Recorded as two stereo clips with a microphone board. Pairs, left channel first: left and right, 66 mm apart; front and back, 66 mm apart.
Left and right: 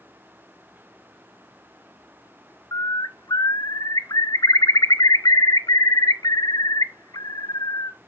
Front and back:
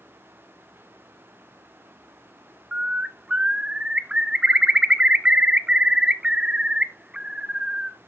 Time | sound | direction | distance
2.7 | a bird | 105° left | 0.5 m